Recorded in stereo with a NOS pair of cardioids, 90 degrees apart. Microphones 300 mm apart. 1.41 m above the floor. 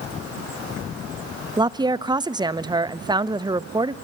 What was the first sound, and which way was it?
A woman speaking, 15° right.